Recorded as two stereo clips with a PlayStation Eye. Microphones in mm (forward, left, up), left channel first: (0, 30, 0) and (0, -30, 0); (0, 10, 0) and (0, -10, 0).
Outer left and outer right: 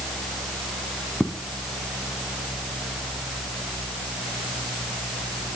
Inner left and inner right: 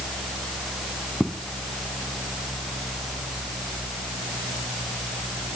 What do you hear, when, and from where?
1.2 s footsteps: 10° left (ahead or behind), 3 m